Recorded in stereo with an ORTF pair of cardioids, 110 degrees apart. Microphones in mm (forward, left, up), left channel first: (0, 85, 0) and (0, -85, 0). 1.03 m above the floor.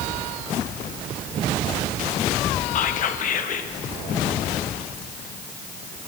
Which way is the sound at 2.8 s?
50° left.